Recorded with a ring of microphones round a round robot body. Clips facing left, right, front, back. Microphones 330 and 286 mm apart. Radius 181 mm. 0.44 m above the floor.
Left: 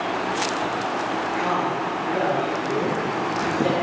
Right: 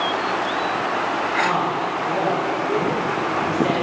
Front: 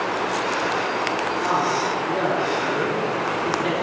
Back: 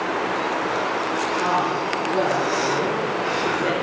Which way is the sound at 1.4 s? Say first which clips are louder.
Right 1 dB, even; 140° left.